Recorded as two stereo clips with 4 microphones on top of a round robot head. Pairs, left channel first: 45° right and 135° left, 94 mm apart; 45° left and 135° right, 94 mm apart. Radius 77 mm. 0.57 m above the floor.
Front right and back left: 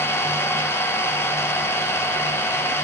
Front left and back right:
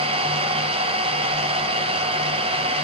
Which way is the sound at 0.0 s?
110° right.